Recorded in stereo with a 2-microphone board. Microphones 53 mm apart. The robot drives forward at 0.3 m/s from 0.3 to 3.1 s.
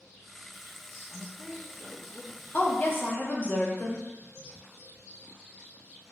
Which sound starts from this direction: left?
A woman speaking, at 2.5 s.